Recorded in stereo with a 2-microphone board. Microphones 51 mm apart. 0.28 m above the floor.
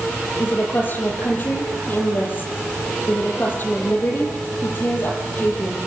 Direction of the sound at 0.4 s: 40° left (ahead or behind).